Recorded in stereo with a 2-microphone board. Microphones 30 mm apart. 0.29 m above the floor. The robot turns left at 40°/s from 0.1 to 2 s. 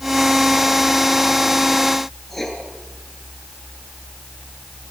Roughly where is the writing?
Centre.